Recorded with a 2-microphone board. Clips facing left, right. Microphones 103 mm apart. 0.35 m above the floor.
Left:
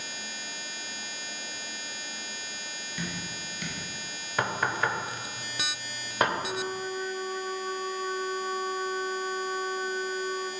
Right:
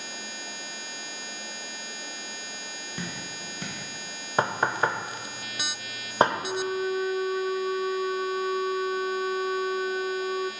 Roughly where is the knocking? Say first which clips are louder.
Right 3 dB; right.